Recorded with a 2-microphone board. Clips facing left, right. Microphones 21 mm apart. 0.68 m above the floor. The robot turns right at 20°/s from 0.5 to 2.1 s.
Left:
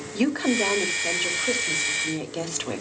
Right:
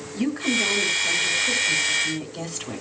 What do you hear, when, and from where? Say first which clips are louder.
0.1 s a woman speaking: left 1 dB; 95° left, 3 m; by 2.8 s 130° left, 3 m